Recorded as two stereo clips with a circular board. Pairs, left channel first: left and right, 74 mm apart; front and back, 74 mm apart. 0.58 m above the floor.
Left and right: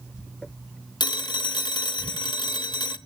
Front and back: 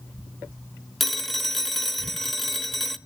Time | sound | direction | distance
1.0 | a phone ringing | 85° left | 1.0 m